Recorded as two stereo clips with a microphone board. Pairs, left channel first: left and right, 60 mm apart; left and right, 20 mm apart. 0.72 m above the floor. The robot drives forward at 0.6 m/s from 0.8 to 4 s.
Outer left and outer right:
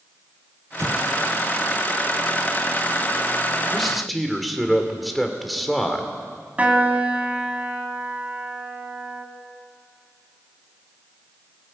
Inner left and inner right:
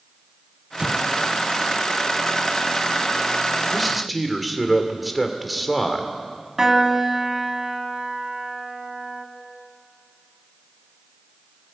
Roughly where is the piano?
Right.